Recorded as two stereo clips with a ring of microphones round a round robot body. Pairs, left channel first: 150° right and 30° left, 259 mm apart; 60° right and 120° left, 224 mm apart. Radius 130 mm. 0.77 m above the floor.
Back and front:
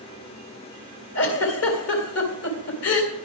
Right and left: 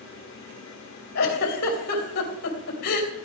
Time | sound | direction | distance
1.1 | a giggle | 115° right | 3 m